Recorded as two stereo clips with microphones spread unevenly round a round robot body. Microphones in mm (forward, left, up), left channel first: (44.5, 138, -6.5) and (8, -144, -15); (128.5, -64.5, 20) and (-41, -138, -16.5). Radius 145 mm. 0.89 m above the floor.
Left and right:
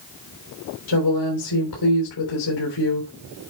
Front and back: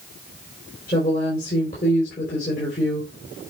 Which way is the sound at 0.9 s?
90° left.